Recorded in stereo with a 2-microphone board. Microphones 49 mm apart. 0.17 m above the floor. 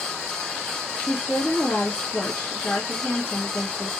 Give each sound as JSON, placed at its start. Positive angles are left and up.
{"t": 1.0, "sound": "a woman speaking", "side_deg": 40, "distance_m": 1.9}